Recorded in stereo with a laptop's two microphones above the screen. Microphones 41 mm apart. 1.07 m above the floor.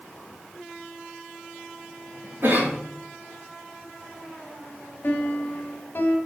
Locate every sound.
2.4 s a cough: 45° right (ahead or behind), 1.9 m
5.0 s a piano: 50° left (ahead or behind), 1.3 m